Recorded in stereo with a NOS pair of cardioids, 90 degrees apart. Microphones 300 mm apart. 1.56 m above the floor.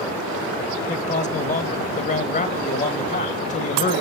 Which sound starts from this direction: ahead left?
A man speaking, at 0.9 s.